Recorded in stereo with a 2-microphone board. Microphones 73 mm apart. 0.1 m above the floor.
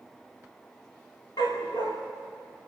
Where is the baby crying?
I don't hear a baby crying.